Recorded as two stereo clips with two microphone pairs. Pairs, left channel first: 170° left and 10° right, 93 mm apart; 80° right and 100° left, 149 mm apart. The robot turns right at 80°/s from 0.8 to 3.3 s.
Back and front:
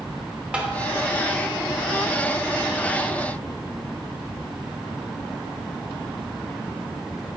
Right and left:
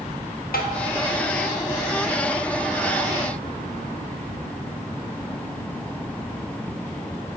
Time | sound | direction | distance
0.5 | tapping | 90° right | 0.9 m